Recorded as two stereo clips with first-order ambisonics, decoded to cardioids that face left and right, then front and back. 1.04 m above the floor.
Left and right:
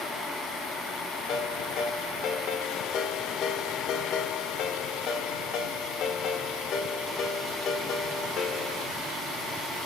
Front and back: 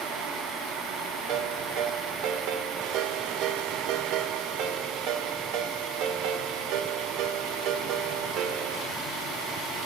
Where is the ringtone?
150° left, 2 m.